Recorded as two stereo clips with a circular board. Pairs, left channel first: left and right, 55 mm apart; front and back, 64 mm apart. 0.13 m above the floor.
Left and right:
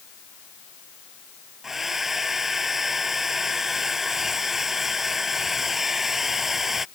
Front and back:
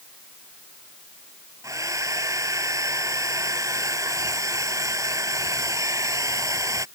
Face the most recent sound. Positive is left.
turn(degrees=-175)